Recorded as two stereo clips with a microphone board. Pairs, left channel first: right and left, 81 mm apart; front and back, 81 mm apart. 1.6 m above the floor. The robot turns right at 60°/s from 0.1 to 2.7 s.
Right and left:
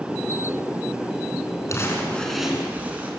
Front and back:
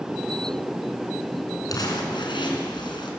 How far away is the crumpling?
About 4 m.